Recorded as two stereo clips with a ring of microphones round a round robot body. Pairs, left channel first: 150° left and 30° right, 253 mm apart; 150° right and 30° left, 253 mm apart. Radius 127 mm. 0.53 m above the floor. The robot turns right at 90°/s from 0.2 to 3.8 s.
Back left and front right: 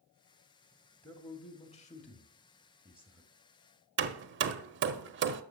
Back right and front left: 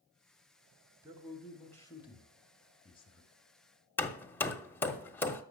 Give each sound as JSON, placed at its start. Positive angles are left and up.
{"t": 1.0, "sound": "a man speaking", "azimuth_deg": 80, "distance_m": 1.3}
{"t": 4.0, "sound": "hammering", "azimuth_deg": -70, "distance_m": 0.6}